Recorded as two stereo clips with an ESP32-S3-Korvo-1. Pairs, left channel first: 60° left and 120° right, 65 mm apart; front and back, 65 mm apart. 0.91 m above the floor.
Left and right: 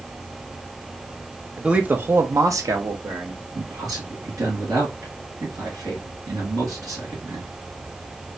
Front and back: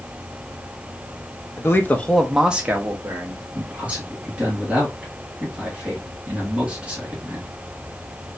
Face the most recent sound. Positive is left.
turn(degrees=-115)